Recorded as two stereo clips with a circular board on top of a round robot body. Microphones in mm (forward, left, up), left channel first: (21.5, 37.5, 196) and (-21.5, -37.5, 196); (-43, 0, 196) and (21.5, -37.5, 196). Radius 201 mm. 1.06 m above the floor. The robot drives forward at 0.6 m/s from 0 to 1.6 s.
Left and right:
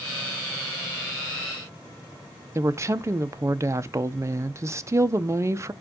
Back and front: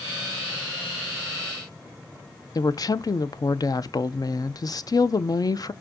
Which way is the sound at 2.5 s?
175° right.